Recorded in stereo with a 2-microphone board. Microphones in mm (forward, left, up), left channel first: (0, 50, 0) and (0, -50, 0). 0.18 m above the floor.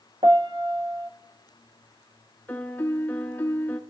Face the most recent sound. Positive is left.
turn(degrees=20)  # may be behind; listen again after turning